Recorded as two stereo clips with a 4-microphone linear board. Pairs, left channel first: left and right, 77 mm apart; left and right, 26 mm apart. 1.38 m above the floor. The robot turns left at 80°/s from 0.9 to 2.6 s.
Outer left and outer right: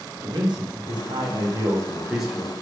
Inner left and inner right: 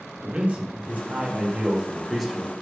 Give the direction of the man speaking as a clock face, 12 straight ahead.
2 o'clock.